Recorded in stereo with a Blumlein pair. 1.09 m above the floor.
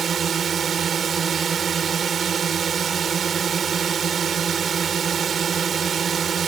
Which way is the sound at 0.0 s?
25° right.